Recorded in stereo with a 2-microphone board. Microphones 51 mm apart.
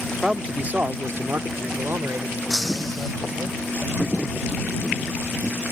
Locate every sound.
0.2 s a man speaking: 10° right (ahead or behind); by 3.5 s 70° right (ahead or behind)
2.5 s breaking glass: centre (ahead or behind)